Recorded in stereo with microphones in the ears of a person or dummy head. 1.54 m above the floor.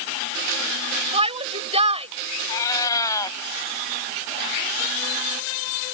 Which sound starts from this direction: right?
A shout, at 1.1 s.